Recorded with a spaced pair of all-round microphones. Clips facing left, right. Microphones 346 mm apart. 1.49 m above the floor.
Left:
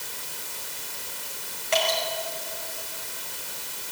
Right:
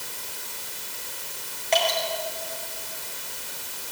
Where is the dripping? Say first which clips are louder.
Right 1 dB; 15° left (ahead or behind), 6 m.